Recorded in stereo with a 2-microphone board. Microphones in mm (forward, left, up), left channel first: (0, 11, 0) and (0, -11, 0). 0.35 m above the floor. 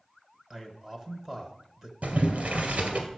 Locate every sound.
0.5 s a man speaking: 20° right (ahead or behind), 1.4 m
2.0 s boiling: 80° right, 1.9 m